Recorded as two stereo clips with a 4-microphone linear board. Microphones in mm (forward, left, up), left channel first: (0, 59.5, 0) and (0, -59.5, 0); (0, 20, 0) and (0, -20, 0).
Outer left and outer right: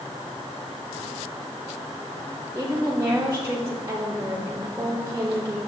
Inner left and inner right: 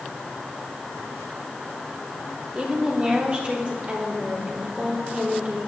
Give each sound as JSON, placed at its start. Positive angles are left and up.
{"t": 2.5, "sound": "a woman speaking", "side_deg": -30, "distance_m": 1.5}